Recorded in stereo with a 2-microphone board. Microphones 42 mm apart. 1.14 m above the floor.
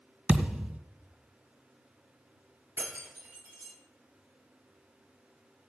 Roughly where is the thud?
Right.